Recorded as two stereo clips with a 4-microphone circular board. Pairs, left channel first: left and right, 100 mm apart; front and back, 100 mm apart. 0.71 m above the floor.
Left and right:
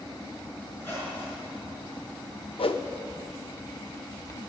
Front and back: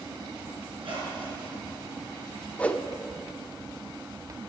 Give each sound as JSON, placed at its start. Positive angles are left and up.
{"t": 0.7, "sound": "a squeak", "azimuth_deg": 155, "distance_m": 4.5}
{"t": 2.6, "sound": "a whoosh", "azimuth_deg": 75, "distance_m": 0.5}